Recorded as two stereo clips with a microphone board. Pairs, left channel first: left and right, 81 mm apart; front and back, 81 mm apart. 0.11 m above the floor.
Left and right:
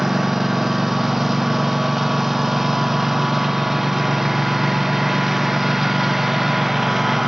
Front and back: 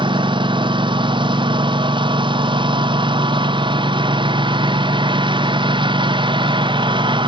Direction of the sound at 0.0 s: 175° right.